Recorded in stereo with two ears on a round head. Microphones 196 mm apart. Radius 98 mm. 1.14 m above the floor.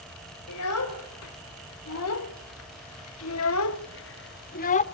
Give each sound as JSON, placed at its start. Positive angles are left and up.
{"t": 0.5, "sound": "a child speaking", "side_deg": 75, "distance_m": 3.0}